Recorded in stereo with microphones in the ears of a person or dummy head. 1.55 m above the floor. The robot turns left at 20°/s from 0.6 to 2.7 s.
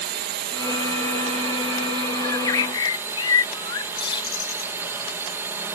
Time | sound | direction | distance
0.0 | a drone | 120° right | ?
2.2 | a bird | 20° left (ahead or behind) | ?